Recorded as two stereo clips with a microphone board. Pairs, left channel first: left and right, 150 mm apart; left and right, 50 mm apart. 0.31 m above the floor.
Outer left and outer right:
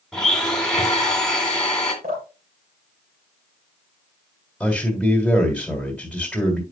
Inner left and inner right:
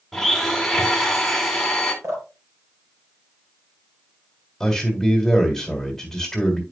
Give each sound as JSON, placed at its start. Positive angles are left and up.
{"t": 0.1, "sound": "a blender", "side_deg": 5, "distance_m": 2.0}
{"t": 2.0, "sound": "dripping", "side_deg": -80, "distance_m": 3.5}
{"t": 4.6, "sound": "a man speaking", "side_deg": 5, "distance_m": 1.8}